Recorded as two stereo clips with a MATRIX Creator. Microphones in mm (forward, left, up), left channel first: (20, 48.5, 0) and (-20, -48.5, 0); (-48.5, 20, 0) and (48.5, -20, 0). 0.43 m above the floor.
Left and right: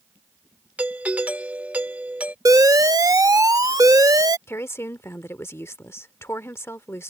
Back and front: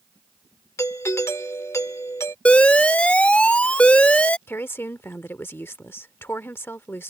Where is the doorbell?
175° right.